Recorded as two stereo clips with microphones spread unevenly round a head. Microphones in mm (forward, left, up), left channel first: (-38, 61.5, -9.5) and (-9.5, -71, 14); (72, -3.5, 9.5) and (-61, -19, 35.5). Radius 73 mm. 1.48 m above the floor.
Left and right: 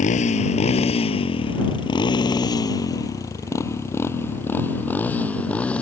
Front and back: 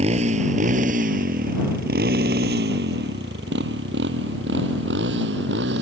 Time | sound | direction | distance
0.0 | a motorcycle | 140° left | ?